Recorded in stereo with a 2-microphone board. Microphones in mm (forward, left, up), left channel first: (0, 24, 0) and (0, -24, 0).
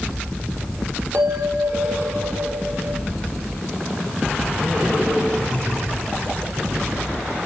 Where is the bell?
65° right (ahead or behind), 6.5 m.